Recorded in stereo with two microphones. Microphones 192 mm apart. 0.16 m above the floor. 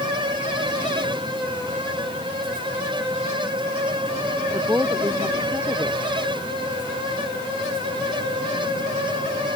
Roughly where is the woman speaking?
Centre.